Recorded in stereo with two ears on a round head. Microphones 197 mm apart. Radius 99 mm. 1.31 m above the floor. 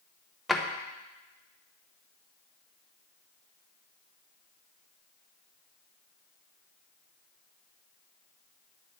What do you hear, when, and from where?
0.5 s a drawer: centre (ahead or behind), 0.6 m